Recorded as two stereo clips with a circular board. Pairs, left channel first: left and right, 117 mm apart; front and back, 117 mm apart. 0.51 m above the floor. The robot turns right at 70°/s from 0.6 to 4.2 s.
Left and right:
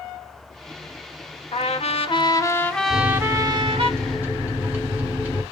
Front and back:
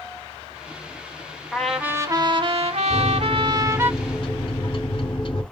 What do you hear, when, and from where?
1.5 s a trumpet: 85° left, 0.6 m; by 3.9 s 110° right, 0.6 m
2.9 s a microwave: 110° right, 0.8 m; by 5.4 s 20° right, 0.8 m